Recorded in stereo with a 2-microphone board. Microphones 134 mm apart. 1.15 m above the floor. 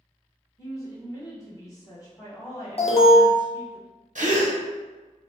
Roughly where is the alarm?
Left.